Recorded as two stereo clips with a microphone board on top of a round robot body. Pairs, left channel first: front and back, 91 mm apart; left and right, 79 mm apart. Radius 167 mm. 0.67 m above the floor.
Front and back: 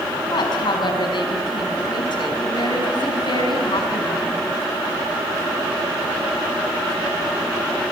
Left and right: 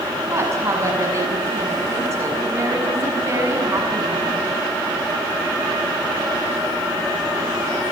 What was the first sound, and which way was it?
A woman speaking, 35° right.